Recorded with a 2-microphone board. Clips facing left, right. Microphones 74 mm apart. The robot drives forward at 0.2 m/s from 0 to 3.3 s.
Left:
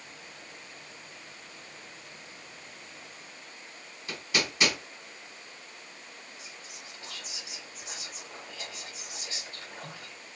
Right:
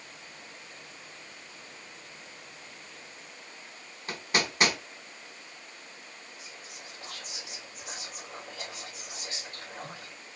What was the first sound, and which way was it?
Hammering, 45° right (ahead or behind).